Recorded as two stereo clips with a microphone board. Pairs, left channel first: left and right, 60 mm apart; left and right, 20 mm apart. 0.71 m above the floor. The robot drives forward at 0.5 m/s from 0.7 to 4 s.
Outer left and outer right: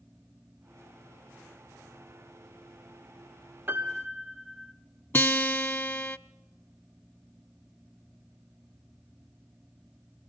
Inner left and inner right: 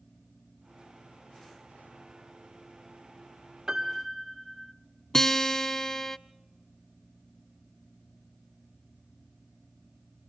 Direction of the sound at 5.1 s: 35° left (ahead or behind).